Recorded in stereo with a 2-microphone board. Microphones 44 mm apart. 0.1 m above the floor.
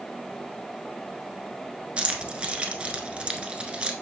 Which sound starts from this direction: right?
Keys jangling, at 2.0 s.